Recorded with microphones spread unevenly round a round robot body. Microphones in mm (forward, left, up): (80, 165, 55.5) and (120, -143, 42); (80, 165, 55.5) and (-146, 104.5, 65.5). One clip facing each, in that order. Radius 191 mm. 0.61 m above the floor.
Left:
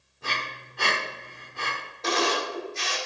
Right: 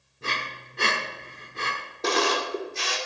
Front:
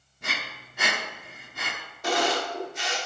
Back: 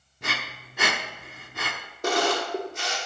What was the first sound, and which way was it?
Breathing, 150° right.